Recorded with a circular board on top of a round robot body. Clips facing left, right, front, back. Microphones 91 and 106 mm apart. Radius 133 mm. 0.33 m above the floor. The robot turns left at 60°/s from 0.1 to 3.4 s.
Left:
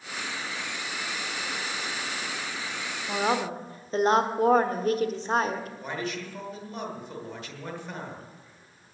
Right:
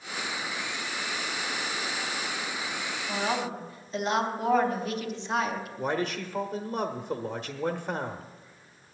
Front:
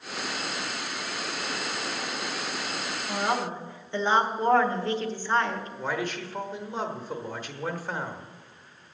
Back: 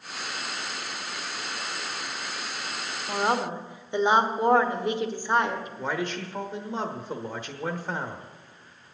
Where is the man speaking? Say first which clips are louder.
Right 4 dB, even; 110° right, 1.2 m.